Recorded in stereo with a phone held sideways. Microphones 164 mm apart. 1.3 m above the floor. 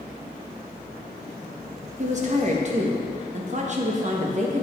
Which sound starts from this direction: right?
A woman speaking, at 2.0 s.